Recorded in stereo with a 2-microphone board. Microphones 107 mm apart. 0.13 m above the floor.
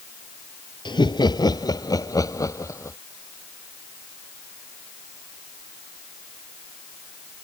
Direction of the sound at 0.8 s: 45° left (ahead or behind).